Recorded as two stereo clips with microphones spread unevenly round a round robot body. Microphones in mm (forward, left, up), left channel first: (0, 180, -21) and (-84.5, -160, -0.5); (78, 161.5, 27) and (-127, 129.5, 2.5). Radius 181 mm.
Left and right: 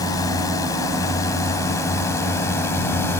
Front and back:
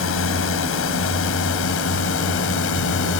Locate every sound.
0.0 s a drone: 5° right